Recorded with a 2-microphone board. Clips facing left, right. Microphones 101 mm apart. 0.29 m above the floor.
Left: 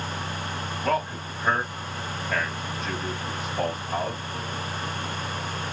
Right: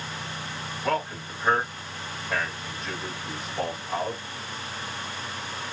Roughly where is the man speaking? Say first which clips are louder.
Left 1 dB; centre.